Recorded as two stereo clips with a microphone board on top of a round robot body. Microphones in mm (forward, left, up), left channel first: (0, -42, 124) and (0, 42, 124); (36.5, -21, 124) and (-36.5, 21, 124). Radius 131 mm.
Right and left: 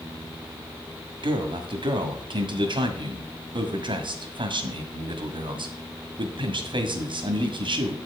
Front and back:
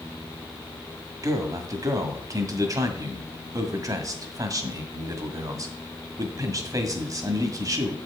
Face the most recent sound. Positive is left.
turn(degrees=105)